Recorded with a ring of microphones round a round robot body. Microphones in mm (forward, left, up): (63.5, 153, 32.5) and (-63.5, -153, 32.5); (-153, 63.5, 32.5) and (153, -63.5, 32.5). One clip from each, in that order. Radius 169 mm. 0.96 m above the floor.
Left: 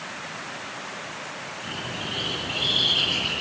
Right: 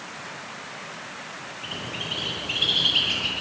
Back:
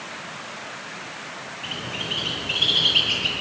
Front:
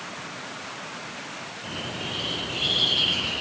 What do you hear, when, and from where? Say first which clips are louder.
1.6 s a bird: right 2 dB, back 4 dB; 170° right, 10 m